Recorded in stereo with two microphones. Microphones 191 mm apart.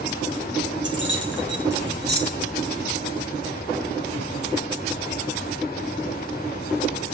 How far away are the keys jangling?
About 2.5 m.